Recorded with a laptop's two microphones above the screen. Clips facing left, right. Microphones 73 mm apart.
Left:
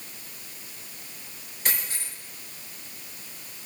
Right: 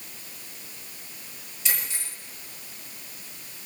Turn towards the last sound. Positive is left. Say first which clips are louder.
# left 1 dB
turn(degrees=55)  # may be behind; listen again after turning